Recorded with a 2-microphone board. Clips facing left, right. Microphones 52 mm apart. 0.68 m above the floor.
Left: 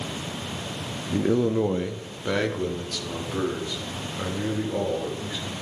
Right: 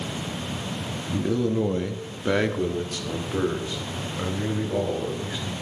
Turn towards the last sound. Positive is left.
turn(degrees=-20)  # may be behind; listen again after turning